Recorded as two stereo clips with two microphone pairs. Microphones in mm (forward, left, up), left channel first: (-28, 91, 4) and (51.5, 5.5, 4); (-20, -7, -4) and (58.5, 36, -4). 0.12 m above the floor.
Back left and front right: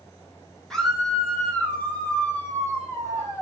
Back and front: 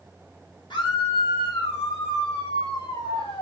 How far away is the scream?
About 3.5 m.